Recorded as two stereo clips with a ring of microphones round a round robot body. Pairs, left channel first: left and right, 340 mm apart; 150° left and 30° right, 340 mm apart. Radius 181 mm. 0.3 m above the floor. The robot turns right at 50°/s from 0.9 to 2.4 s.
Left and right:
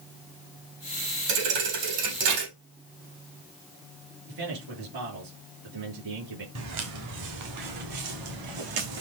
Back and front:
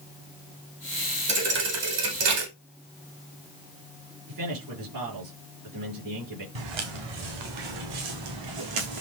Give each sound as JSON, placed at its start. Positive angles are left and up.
{"t": 1.3, "sound": "a thud", "azimuth_deg": -105, "distance_m": 4.0}
{"t": 4.3, "sound": "a man speaking", "azimuth_deg": -65, "distance_m": 7.5}
{"t": 6.5, "sound": "footsteps", "azimuth_deg": -40, "distance_m": 4.5}